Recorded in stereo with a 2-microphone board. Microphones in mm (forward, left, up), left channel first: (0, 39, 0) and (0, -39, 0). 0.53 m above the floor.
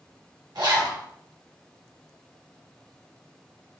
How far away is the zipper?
About 1.1 m.